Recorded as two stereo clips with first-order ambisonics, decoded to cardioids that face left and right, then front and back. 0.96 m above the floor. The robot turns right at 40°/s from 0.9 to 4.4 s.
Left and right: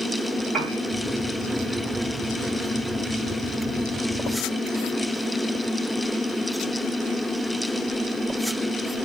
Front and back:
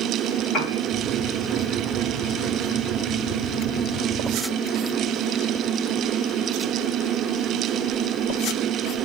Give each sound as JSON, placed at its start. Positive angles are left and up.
{"t": 0.5, "sound": "a piano", "azimuth_deg": -30, "distance_m": 2.5}